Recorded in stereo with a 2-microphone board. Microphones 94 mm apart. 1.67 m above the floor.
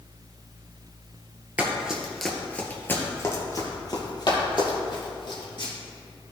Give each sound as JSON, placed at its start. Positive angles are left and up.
{"t": 1.6, "sound": "running footsteps", "side_deg": -15, "distance_m": 1.9}